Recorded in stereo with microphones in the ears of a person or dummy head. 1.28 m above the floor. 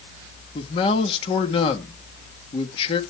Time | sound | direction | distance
0.6 | a man speaking | 35° left (ahead or behind) | 1.8 m